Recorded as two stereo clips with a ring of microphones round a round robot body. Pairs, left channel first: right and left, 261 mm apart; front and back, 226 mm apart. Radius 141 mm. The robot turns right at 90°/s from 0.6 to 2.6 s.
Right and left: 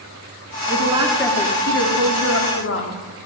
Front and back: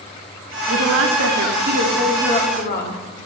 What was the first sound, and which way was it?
A woman speaking, 135° left.